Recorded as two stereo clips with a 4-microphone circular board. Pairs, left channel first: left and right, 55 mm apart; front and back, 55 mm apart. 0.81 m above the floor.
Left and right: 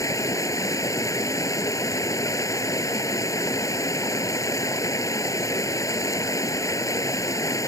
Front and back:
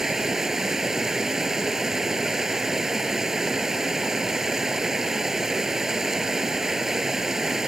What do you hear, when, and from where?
0.0 s running water: 100° left